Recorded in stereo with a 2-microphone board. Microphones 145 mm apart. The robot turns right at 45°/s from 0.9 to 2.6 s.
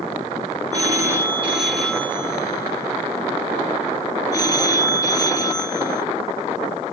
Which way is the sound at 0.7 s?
35° right.